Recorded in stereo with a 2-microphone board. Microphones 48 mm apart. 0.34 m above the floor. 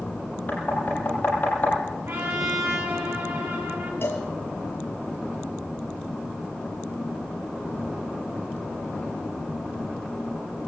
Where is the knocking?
35° left (ahead or behind), 9.5 m.